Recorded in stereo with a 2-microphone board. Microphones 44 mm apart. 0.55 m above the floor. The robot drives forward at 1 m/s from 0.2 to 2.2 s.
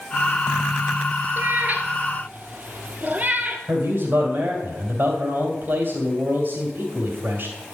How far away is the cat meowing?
About 1.2 m.